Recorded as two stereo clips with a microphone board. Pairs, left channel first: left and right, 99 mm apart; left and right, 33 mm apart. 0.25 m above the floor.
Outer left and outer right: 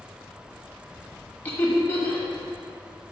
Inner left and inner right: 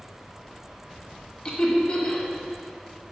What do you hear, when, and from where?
1.4 s laughter: 20° left (ahead or behind), 1.3 m